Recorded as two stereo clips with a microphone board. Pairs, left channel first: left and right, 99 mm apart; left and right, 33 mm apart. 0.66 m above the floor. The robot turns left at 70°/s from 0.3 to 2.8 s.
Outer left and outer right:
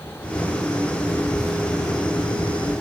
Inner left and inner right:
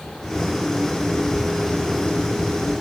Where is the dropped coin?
I don't hear a dropped coin.